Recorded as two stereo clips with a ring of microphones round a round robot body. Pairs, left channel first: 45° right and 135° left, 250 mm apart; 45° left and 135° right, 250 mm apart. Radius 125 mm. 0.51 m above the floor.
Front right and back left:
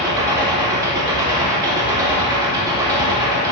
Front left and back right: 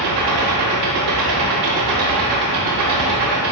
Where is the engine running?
150° right, 0.8 m.